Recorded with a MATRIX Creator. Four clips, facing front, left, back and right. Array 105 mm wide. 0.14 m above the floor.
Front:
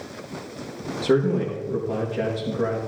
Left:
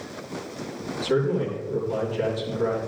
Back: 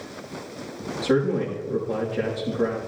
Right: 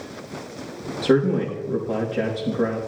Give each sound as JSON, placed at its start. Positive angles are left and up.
{"t": 1.0, "sound": "a man speaking", "azimuth_deg": -70, "distance_m": 5.5}